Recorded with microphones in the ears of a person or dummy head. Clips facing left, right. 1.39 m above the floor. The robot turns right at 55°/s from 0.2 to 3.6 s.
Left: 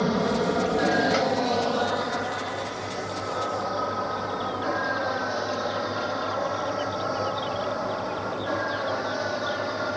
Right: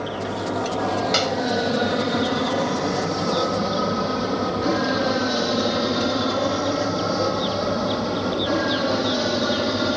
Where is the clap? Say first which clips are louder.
Even; 50° right (ahead or behind); by 1.4 s 35° right (ahead or behind).